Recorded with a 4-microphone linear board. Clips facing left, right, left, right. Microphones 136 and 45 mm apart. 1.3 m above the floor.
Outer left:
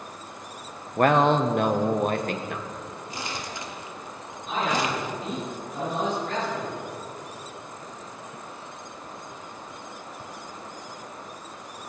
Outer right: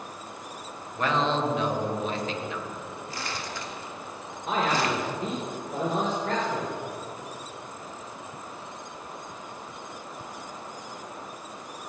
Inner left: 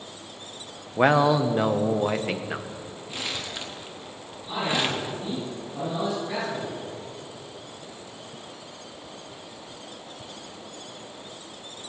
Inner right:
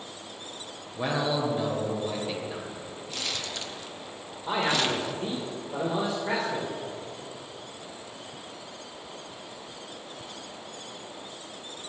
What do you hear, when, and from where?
1.0 s a man speaking: 55° left (ahead or behind), 1.1 m
3.1 s crumpling: 20° left (ahead or behind), 1.6 m
4.5 s a man speaking: 90° right, 4 m